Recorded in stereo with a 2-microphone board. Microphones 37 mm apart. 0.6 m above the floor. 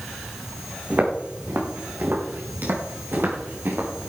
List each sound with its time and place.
0.9 s footsteps: 60° right (ahead or behind), 5 m; by 3.9 s 80° right, 4.5 m